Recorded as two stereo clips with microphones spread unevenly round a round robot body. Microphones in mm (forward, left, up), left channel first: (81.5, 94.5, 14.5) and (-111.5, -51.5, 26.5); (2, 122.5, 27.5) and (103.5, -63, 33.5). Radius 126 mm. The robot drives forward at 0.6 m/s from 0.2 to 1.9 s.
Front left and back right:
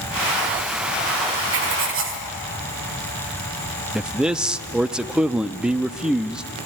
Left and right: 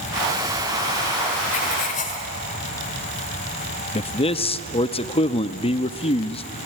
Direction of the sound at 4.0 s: 125° left.